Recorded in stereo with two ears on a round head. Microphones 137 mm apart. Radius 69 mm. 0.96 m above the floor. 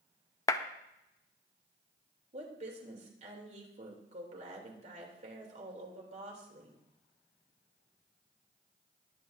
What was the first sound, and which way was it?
A clap, 20° left (ahead or behind).